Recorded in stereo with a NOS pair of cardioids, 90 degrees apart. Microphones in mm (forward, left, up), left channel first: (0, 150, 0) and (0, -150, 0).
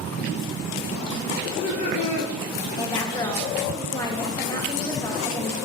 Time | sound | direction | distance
1.4 | laughter | 50° left | 1.4 m
2.8 | a woman speaking | 15° left | 1.3 m